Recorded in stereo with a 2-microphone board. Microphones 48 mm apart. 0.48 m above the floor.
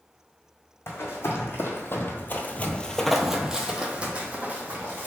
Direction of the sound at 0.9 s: 55° left (ahead or behind).